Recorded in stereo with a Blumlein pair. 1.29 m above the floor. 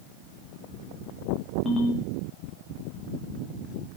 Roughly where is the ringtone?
Ahead.